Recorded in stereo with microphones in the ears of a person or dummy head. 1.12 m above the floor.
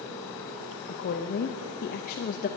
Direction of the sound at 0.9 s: 50° left (ahead or behind).